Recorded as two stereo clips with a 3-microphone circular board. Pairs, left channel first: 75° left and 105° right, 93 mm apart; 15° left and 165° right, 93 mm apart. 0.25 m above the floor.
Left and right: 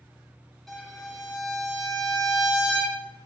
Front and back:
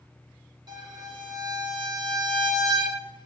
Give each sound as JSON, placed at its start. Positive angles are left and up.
{"t": 0.7, "sound": "a violin", "azimuth_deg": 160, "distance_m": 3.0}